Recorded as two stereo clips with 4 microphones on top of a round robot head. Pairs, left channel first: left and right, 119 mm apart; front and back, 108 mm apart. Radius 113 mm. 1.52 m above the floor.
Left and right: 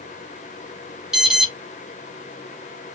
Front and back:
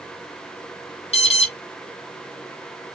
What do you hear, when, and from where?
1.1 s an alarm: 5° right, 1.6 m